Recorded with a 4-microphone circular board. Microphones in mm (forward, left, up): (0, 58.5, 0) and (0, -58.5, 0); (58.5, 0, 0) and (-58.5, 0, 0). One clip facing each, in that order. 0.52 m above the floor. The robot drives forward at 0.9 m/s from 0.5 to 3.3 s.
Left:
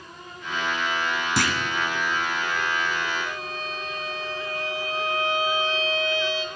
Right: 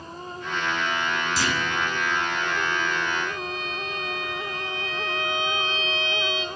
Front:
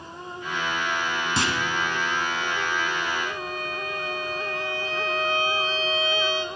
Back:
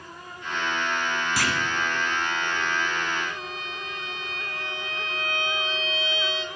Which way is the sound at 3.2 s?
40° left.